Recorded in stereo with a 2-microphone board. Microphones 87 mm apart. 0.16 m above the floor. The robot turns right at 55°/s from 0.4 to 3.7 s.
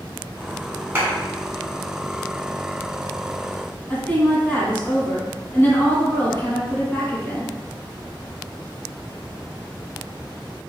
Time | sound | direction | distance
0.9 | a clap | 25° right (ahead or behind) | 1.6 m
3.9 | a woman speaking | 25° left (ahead or behind) | 1.3 m